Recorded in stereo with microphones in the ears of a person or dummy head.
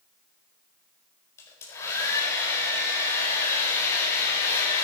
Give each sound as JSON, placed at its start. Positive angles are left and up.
{"t": 1.4, "sound": "a hair dryer", "side_deg": 15, "distance_m": 4.5}